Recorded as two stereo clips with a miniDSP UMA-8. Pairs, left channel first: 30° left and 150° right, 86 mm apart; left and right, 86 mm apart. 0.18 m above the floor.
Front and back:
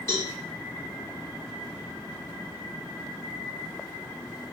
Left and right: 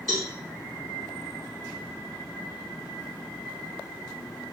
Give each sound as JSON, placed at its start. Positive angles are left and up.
{"t": 0.1, "sound": "a cowbell", "azimuth_deg": 15, "distance_m": 1.9}